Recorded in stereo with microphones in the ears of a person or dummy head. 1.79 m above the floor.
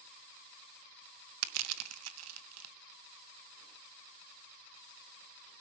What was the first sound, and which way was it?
Crushing, 85° right.